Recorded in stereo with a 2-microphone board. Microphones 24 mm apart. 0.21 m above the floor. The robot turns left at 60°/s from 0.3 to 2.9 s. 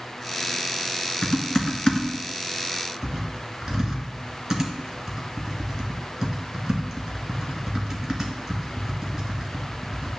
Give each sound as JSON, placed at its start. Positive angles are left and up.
{"t": 1.2, "sound": "typing on a keyboard", "side_deg": 60, "distance_m": 2.0}